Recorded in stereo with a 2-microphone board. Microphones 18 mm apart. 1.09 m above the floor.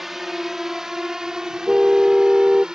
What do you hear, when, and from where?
0.0 s a drone: 15° right (ahead or behind); by 2.8 s 45° right (ahead or behind)
1.7 s a car horn: 70° right (ahead or behind)